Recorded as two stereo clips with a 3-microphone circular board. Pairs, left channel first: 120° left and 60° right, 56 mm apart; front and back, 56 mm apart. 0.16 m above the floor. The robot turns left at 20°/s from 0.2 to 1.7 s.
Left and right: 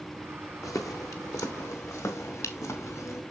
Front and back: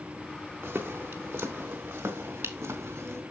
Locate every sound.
0.6 s footsteps: 130° left, 1.6 m; by 3.2 s 140° left, 2.5 m